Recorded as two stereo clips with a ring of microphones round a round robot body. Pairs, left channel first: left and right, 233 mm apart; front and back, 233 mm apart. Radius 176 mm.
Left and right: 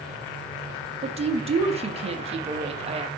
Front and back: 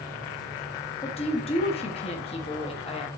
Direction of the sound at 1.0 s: 45° right.